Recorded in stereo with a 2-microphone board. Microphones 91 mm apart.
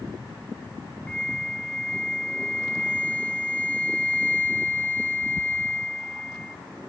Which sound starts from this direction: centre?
A flute, at 1.1 s.